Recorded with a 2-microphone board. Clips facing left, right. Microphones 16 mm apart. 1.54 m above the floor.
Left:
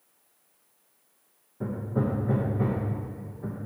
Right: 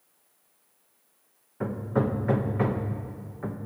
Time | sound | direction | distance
1.6 | hammering | 55° right (ahead or behind) | 1.0 m